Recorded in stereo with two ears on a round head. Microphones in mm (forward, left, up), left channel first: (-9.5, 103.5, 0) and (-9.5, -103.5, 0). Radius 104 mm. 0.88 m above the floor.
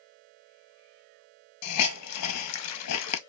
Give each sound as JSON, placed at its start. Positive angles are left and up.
{"t": 1.6, "sound": "a hiss", "side_deg": 75, "distance_m": 0.6}